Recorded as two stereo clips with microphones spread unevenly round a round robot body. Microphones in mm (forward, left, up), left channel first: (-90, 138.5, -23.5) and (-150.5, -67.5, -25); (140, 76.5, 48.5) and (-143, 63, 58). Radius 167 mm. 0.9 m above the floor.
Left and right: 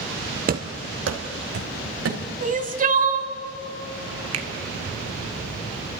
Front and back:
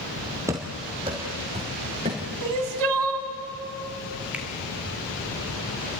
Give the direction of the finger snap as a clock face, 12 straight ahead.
3 o'clock.